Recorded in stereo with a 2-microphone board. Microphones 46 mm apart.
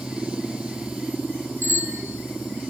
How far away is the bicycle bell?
About 5 m.